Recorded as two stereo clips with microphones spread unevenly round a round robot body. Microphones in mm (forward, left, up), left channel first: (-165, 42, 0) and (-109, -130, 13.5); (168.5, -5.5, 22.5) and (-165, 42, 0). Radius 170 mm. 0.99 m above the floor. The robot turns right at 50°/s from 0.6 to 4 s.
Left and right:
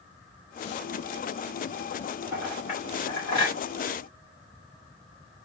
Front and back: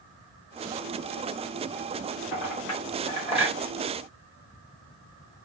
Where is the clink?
15° left, 1.5 m; by 3.6 s 80° left, 1.5 m.